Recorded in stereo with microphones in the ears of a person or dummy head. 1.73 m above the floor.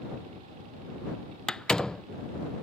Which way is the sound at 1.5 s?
5° left (ahead or behind).